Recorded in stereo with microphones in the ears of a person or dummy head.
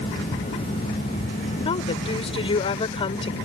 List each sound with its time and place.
1.6 s a woman speaking: 30° left (ahead or behind)